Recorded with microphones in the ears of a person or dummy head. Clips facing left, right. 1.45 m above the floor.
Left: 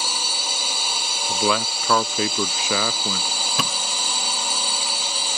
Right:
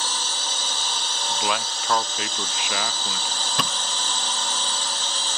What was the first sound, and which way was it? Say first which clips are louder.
A drone: left 1 dB; 10° left (ahead or behind).